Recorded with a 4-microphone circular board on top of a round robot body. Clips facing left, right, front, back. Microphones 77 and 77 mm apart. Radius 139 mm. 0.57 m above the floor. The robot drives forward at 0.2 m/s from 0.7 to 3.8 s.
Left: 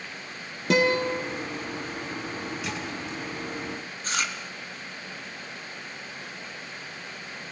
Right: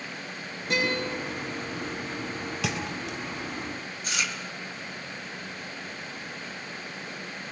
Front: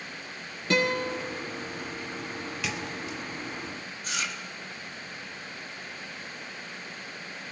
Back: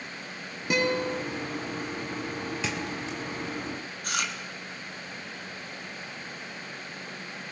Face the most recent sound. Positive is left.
turn(degrees=145)